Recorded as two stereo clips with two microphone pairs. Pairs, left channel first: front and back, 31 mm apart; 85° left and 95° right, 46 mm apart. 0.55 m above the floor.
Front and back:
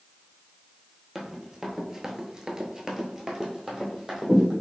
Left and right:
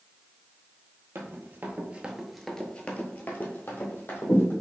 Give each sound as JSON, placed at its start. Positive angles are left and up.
{"t": 1.1, "sound": "running footsteps", "azimuth_deg": -95, "distance_m": 0.8}